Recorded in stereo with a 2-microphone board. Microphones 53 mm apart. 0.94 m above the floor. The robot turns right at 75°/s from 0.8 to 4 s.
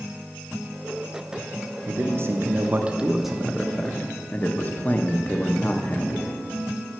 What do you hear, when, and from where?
1.9 s a man speaking: 110° right, 0.7 m; by 6.3 s 50° left, 0.7 m